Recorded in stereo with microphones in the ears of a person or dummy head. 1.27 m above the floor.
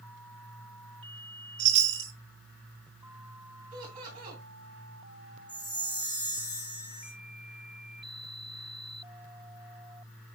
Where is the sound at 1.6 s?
40° right (ahead or behind), 1.0 m.